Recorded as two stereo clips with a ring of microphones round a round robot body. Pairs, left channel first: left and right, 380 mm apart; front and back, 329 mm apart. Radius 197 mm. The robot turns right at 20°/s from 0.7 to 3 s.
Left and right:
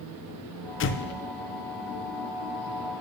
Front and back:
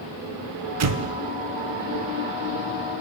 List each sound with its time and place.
0.8 s an explosion: 145° left, 0.5 m; by 1.1 s 150° left, 0.5 m